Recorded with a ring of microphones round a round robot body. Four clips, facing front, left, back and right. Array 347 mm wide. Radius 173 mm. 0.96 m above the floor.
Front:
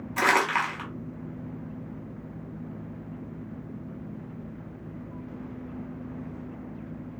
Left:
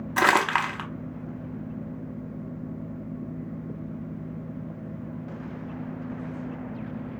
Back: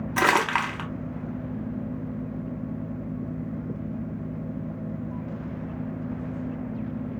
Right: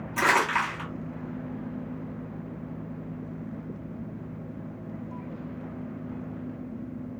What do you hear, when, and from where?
0.2 s crumpling: 130° left, 0.9 m